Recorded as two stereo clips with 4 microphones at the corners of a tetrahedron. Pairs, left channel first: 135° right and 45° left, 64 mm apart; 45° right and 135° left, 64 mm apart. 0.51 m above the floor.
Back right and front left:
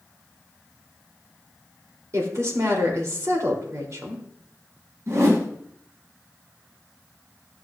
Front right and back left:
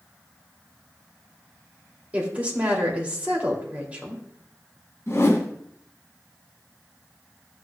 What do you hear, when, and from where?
2.1 s a woman speaking: 75° left, 2 m
5.1 s a whoosh: 5° left, 1.5 m